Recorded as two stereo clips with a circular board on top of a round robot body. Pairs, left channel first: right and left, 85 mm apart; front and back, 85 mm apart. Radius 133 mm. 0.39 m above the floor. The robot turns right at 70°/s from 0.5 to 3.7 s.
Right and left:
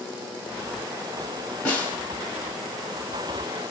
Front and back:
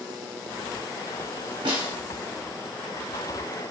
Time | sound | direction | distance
1.6 | a snare drum | 165° right | 1.5 m